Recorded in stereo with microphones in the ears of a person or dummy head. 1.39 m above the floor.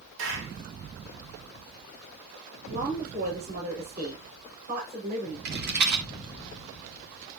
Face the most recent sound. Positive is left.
turn(degrees=-55)  # may be behind; listen again after turning